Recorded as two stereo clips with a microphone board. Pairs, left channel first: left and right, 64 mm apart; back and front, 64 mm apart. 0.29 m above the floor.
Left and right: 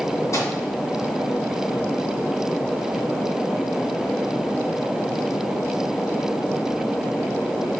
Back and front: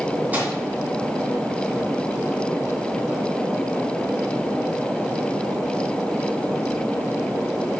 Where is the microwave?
65° left, 3 m.